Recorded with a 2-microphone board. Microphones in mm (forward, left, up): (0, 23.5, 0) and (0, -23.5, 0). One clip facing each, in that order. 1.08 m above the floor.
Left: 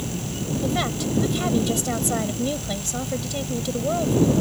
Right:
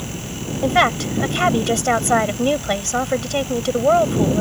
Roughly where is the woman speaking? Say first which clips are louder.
Right 10 dB; right.